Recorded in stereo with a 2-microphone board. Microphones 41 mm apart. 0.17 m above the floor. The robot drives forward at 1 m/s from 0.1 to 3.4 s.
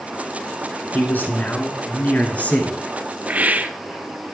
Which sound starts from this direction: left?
A man speaking, at 0.9 s.